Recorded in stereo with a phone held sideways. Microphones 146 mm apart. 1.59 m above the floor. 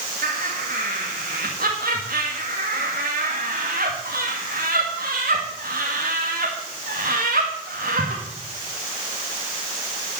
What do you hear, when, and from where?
0.2 s laughter: 75° right (ahead or behind), 2 m